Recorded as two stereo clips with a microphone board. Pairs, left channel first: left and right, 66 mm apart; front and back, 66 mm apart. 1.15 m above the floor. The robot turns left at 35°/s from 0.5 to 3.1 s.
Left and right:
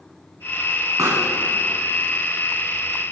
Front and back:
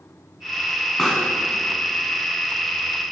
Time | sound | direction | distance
1.0 | a pop | 85° right | 1.6 m